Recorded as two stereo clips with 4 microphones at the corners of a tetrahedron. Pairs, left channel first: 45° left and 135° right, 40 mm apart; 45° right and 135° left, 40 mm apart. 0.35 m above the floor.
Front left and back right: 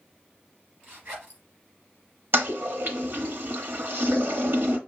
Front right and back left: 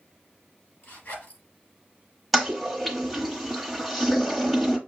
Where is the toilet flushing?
135° right, 1.0 m.